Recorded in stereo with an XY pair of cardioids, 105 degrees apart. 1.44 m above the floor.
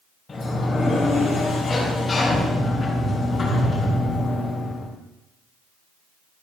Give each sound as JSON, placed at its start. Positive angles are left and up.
{"t": 0.3, "sound": "a sliding door", "azimuth_deg": 30, "distance_m": 4.0}